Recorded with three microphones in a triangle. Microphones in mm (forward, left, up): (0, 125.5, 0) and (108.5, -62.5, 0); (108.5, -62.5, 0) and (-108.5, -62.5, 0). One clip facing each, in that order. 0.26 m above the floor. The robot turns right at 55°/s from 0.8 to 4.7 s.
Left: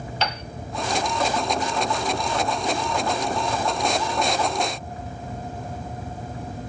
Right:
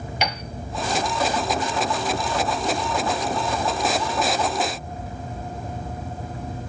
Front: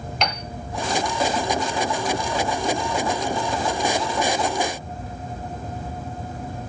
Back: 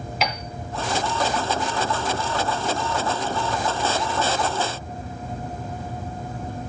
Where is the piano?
105° right, 1.1 m.